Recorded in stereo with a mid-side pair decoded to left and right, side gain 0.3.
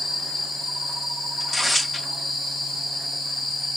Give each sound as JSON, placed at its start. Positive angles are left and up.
{"t": 1.4, "sound": "tearing paper", "azimuth_deg": 20, "distance_m": 2.5}